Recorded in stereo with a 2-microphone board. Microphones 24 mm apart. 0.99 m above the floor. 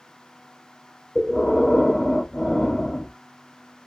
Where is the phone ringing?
No phone ringing in this recording.